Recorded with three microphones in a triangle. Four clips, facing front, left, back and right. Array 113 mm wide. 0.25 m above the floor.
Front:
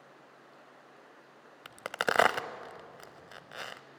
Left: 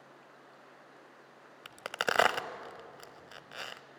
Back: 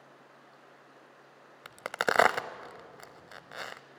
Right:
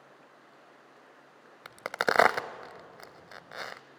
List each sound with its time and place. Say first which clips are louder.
1.6 s a crack: right 5 dB, back 2 dB; 115° right, 0.5 m